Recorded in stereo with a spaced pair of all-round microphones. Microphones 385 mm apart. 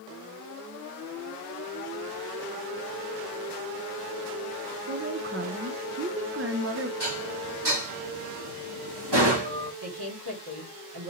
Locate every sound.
4.9 s a woman speaking: 35° right (ahead or behind), 0.6 m
7.0 s dishes clattering: 80° right, 1.3 m
9.8 s a woman speaking: 70° right (ahead or behind), 2 m